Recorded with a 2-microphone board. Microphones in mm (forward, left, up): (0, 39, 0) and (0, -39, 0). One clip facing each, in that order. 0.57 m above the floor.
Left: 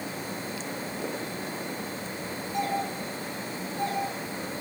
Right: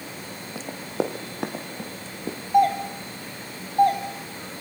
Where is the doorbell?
60° right (ahead or behind), 3.5 m.